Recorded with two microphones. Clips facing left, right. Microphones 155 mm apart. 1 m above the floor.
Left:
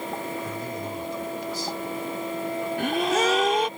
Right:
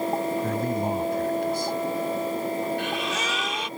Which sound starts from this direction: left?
A gasp, at 2.8 s.